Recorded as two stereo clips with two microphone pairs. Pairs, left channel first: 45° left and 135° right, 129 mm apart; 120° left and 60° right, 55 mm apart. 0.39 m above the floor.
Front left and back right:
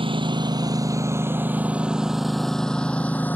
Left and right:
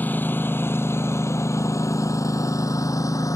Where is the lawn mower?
Straight behind; by 3.4 s 120° left.